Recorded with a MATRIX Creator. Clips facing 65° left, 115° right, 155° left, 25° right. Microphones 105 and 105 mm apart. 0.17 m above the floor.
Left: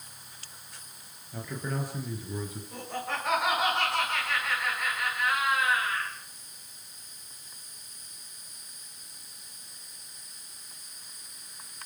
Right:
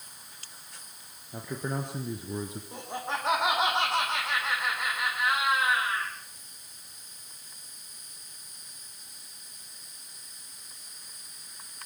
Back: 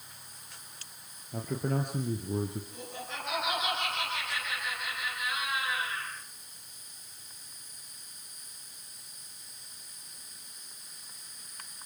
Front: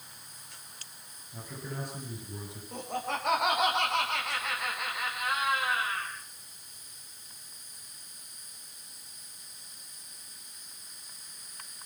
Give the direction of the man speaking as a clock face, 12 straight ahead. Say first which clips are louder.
Right 1 dB, back 9 dB; 6 o'clock.